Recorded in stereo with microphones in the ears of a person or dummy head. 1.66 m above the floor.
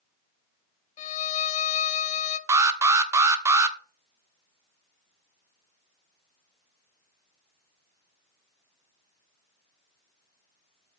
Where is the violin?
45° left (ahead or behind), 0.8 m.